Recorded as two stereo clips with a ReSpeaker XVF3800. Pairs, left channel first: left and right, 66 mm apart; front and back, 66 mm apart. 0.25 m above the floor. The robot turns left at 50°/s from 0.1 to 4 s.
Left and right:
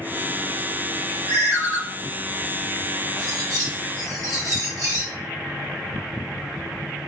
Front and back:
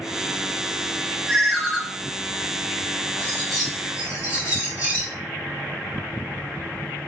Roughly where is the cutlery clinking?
Right.